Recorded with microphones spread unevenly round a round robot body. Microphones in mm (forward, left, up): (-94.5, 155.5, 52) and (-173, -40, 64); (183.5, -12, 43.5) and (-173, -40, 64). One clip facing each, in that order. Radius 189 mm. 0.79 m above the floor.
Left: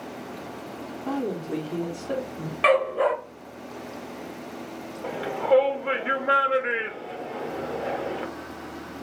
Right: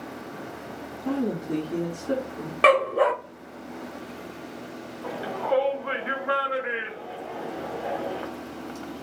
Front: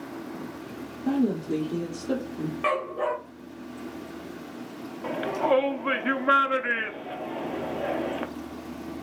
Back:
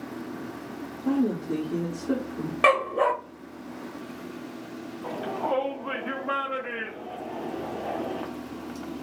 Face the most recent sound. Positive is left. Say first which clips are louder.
# left 4 dB, front 5 dB
turn(degrees=15)